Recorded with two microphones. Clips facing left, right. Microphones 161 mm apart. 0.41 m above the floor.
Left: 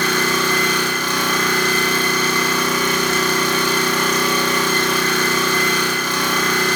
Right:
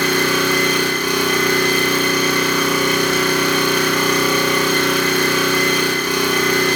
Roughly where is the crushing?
I don't hear crushing.